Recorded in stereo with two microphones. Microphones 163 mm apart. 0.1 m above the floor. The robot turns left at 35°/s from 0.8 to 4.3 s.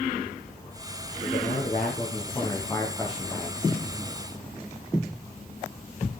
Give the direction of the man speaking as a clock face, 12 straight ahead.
10 o'clock.